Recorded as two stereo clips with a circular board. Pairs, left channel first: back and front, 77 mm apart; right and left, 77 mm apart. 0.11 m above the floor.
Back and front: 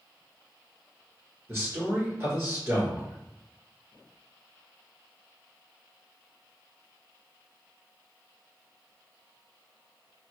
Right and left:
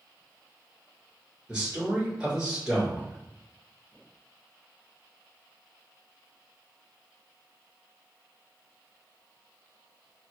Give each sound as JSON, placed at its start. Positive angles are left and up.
{"t": 1.5, "sound": "a man speaking", "azimuth_deg": 15, "distance_m": 1.6}